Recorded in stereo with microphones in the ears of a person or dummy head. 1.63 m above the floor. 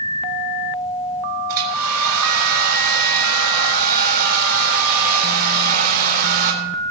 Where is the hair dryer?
65° right (ahead or behind), 4 m.